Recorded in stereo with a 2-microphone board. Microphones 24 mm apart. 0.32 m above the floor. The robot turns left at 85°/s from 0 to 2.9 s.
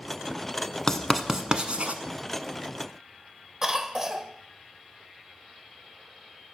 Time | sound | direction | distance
0.9 | writing | 15° left (ahead or behind) | 1.0 m
3.6 | a cough | 25° right (ahead or behind) | 1.0 m